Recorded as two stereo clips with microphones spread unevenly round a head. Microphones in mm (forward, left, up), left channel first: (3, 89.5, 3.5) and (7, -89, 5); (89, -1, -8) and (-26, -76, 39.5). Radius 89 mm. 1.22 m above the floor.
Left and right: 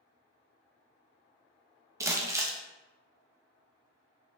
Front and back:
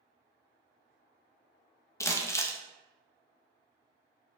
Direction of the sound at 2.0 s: 20° right.